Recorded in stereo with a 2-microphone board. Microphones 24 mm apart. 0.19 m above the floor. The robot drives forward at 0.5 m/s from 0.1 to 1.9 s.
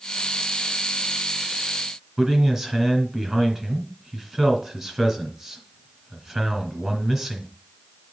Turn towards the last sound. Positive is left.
turn(degrees=-25)  # may be behind; listen again after turning